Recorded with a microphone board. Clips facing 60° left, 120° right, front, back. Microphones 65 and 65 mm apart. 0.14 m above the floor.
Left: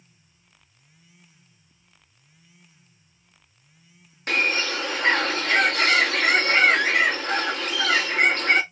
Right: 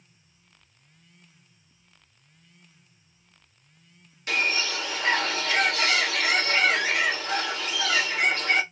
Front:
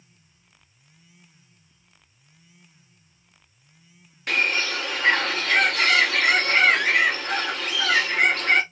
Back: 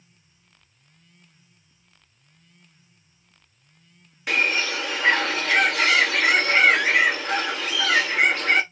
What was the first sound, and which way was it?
A bird, 95° left.